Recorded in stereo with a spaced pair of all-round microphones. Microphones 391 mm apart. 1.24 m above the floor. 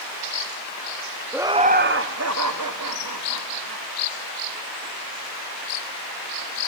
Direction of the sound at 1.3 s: 5° right (ahead or behind).